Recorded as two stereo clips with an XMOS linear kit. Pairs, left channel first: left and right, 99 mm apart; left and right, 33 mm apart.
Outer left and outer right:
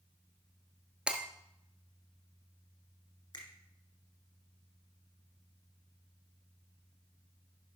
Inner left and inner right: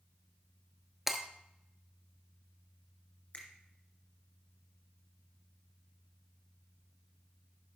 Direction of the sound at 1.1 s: 10° right (ahead or behind).